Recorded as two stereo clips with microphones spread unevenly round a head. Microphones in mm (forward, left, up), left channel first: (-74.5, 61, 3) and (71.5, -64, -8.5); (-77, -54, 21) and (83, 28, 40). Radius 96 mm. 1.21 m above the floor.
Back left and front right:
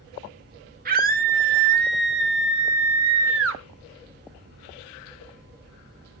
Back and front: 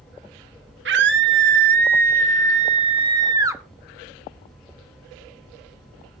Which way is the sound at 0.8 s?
5° left.